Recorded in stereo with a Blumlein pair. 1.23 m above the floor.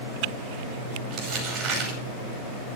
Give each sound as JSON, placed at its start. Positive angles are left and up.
{"t": 1.1, "sound": "crumpling", "azimuth_deg": -35, "distance_m": 5.5}